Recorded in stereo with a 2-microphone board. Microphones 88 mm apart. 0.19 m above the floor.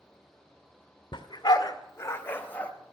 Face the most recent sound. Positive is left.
turn(degrees=15)  # may be behind; listen again after turning